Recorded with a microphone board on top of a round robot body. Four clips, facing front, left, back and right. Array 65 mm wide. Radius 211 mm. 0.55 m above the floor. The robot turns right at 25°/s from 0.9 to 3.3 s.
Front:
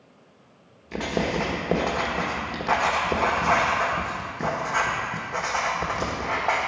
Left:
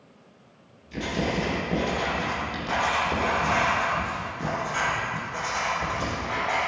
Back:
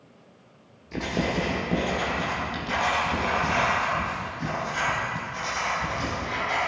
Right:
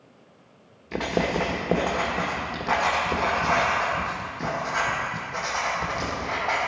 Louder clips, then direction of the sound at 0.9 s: Right 3 dB, front 1 dB; 70° right.